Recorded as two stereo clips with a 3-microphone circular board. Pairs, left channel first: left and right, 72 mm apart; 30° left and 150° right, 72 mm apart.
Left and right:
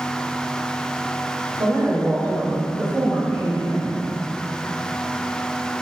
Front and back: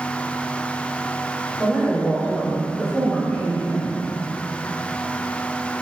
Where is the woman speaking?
75° right, 1.6 m; by 4.0 s 20° right, 0.9 m.